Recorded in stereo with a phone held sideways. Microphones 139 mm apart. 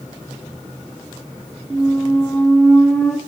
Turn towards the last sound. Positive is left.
turn(degrees=0)  # may be behind; listen again after turning